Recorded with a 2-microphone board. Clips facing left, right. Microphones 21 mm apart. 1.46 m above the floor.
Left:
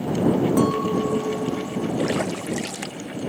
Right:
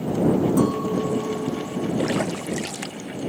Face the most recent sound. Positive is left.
turn(degrees=0)  # may be behind; listen again after turning